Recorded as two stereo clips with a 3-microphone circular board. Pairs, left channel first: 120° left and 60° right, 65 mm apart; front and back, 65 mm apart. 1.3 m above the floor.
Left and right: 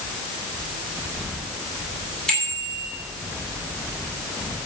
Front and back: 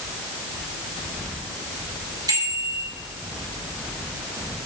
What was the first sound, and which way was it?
A bicycle bell, 160° right.